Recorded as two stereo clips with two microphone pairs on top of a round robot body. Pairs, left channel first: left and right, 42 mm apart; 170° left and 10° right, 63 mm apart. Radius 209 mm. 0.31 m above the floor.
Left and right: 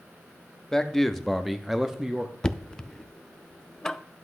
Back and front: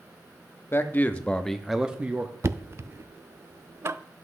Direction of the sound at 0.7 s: 160° left.